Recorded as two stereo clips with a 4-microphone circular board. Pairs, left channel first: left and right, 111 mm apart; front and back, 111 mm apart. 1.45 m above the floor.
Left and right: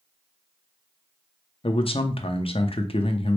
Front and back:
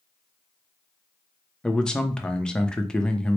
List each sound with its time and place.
1.6 s a man speaking: 80° left, 0.6 m